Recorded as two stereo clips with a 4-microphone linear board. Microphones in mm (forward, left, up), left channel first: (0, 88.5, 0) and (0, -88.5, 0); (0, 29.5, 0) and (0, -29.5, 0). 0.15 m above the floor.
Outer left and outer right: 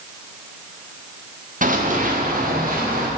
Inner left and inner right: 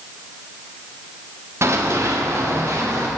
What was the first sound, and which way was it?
Running footsteps, 50° right (ahead or behind).